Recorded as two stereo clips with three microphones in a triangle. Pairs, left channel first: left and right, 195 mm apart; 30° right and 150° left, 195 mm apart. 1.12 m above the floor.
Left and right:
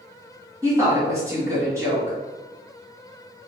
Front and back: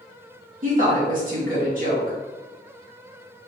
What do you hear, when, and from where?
0.6 s a woman speaking: 165° right, 1.6 m